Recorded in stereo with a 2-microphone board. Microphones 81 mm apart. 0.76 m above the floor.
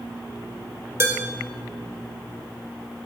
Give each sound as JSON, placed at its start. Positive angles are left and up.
{"t": 1.0, "sound": "dishes clattering", "side_deg": -35, "distance_m": 2.0}